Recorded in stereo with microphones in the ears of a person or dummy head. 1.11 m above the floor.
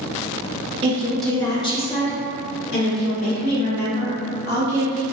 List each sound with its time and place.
0.8 s a woman speaking: 25° right (ahead or behind), 0.6 m; by 5.0 s 60° left (ahead or behind), 2.5 m